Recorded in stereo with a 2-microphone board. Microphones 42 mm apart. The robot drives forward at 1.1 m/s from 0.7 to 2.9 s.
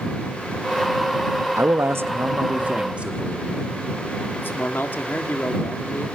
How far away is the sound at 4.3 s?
About 1.7 m.